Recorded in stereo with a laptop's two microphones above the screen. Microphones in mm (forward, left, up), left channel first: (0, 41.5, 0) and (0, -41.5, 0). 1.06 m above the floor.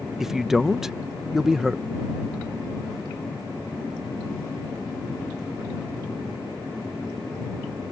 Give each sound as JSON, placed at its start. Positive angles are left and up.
{"t": 0.2, "sound": "a man speaking", "side_deg": -5}